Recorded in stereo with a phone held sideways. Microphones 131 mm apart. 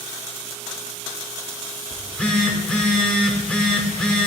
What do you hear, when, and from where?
1.9 s a phone buzzing: 10° left (ahead or behind), 0.8 m